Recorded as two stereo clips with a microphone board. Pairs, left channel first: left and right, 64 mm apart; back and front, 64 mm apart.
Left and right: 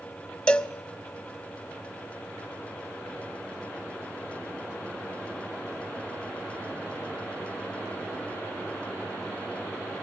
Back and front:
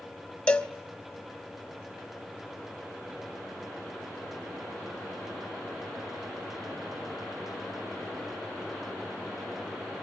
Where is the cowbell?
135° left, 0.5 m.